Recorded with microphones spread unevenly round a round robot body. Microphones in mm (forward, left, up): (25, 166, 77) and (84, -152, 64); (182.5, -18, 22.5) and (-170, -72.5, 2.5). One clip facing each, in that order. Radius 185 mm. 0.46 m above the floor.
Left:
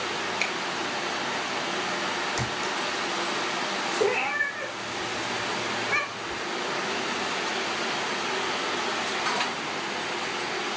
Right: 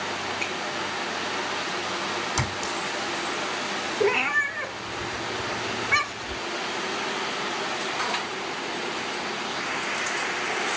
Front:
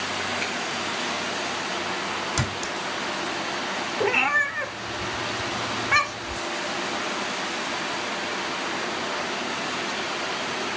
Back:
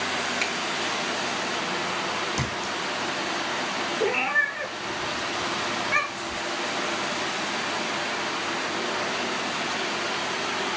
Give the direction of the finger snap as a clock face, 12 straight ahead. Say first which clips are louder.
Right 1 dB, even; 8 o'clock.